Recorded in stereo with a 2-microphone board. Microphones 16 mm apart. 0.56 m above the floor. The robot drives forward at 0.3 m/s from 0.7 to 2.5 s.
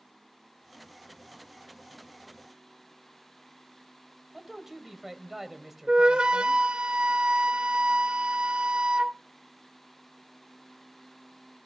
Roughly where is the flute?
Right.